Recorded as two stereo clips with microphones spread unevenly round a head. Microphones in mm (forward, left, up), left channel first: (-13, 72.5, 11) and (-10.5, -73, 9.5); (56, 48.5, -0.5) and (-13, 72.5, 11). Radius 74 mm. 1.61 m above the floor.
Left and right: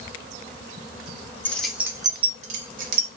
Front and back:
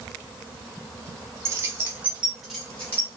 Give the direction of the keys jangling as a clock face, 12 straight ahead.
7 o'clock.